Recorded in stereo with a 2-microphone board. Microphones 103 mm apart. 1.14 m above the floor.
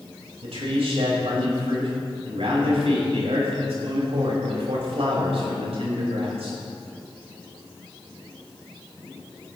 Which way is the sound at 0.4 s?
85° right.